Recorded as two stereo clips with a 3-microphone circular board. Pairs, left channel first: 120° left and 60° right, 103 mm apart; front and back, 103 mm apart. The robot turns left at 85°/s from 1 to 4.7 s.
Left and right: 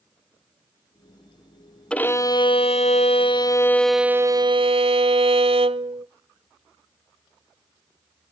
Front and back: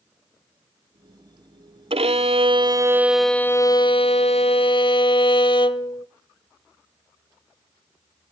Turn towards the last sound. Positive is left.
turn(degrees=-35)